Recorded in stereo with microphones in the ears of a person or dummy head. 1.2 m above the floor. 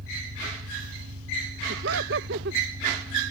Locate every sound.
0.0 s an engine running: 60° right (ahead or behind)
1.7 s laughter: 55° right (ahead or behind)